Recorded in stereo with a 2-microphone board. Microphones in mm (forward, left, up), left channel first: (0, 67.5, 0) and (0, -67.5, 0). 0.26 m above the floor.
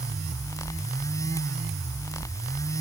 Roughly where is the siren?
I don't hear a siren.